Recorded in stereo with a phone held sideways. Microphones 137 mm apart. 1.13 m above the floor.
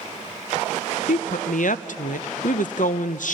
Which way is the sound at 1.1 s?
70° left (ahead or behind).